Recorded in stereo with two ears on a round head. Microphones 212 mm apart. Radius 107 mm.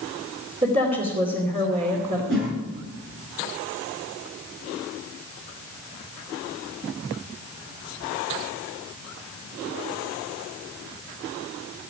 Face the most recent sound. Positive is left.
turn(degrees=-50)  # may be behind; listen again after turning